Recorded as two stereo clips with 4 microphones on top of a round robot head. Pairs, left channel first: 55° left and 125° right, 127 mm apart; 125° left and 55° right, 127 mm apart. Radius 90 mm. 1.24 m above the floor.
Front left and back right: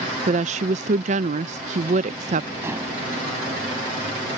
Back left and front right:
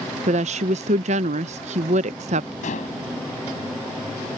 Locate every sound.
0.3 s a woman speaking: 90° right
2.6 s dishes clattering: 160° left